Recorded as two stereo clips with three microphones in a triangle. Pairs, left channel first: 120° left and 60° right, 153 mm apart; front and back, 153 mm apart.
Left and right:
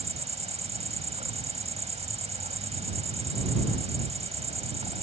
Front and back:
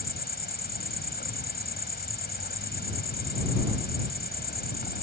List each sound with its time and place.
0.0 s an insect: 10° right